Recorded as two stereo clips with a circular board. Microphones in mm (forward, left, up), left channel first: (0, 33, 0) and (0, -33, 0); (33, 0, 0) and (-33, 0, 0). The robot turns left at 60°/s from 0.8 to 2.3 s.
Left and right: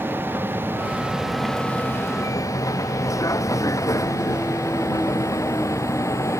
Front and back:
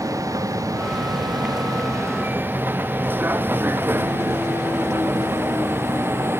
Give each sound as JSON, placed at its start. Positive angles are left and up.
{"t": 0.0, "sound": "a vehicle", "azimuth_deg": -150}